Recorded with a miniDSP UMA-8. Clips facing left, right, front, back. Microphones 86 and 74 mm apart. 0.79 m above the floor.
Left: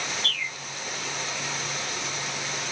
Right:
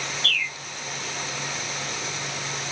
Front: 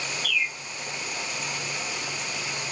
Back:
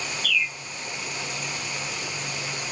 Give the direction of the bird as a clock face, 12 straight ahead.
11 o'clock.